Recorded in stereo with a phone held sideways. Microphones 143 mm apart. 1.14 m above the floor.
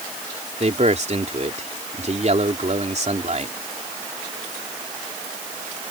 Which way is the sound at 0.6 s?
55° right (ahead or behind).